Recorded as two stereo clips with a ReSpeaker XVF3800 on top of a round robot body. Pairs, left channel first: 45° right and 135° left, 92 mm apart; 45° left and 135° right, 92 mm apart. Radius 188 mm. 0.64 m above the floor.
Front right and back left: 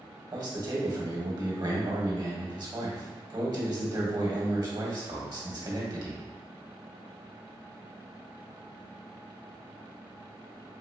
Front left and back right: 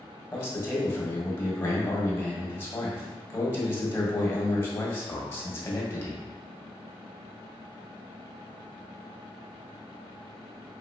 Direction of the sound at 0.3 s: 105° left.